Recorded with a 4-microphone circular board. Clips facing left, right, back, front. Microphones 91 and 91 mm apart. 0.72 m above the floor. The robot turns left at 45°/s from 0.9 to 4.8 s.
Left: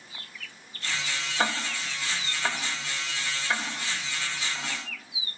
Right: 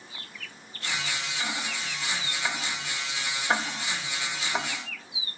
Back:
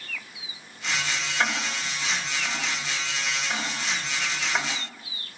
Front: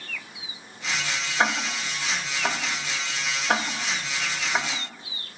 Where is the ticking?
65° left, 3 m; by 4.7 s 85° right, 3 m.